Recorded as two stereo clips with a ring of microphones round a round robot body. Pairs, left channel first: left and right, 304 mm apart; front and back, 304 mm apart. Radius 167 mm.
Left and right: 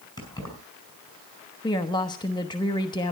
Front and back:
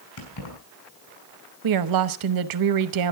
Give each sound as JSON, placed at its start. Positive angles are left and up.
{"t": 0.2, "sound": "keys jangling", "azimuth_deg": 15, "distance_m": 5.5}
{"t": 1.6, "sound": "a woman speaking", "azimuth_deg": 165, "distance_m": 1.0}